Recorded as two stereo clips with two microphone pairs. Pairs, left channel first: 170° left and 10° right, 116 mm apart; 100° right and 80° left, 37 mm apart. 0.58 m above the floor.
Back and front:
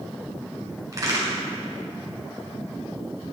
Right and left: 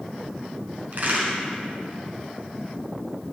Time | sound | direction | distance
0.9 | a crack | 45° left | 4.5 m